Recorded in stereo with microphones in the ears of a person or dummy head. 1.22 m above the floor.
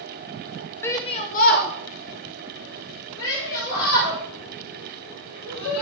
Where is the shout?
15° left (ahead or behind), 0.6 m; by 5.8 s 75° left (ahead or behind), 3.5 m.